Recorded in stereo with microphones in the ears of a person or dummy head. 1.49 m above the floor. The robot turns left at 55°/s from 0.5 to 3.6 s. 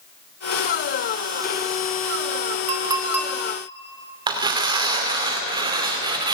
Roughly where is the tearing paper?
Right.